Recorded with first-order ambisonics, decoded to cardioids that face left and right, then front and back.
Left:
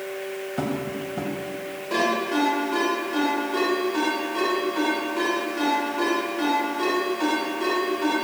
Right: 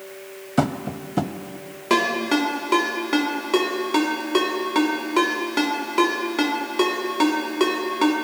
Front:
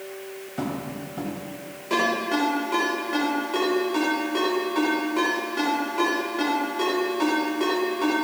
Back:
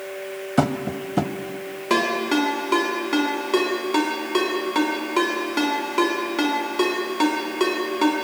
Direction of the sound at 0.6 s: 140° right.